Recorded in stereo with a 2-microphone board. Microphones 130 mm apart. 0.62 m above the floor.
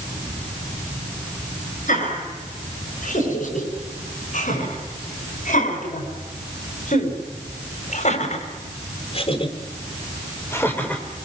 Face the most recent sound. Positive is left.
turn(degrees=0)  # may be behind; listen again after turning